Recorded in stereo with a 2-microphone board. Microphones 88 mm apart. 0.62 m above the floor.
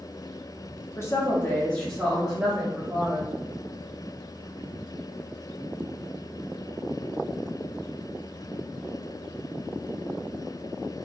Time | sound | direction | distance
1.0 | a woman speaking | 30° left (ahead or behind) | 0.8 m